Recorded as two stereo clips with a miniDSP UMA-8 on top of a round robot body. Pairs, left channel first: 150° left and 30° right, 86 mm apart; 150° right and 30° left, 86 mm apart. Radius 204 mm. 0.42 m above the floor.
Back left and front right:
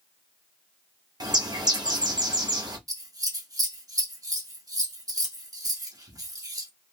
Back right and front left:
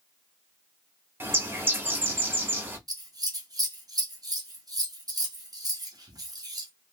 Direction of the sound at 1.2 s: 25° right.